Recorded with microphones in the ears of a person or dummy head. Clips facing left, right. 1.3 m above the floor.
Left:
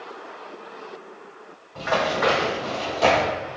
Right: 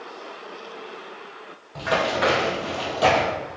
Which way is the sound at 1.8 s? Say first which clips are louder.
Even; 50° right (ahead or behind).